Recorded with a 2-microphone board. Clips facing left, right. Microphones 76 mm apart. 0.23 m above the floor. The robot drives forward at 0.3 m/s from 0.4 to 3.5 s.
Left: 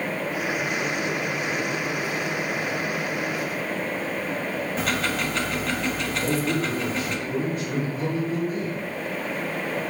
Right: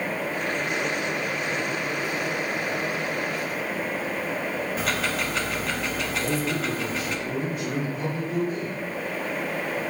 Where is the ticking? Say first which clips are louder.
Left 2 dB; centre (ahead or behind), 0.5 m.